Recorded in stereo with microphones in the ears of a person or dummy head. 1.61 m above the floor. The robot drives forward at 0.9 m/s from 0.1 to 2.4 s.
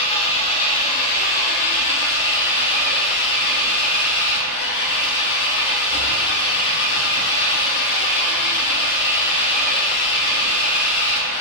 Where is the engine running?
30° left (ahead or behind), 2.5 m; by 11.4 s 50° left (ahead or behind), 1.5 m.